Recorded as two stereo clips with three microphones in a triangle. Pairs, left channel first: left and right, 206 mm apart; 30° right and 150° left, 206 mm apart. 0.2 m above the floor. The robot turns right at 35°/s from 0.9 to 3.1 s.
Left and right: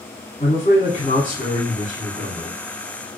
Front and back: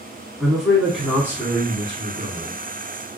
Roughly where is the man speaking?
Ahead left.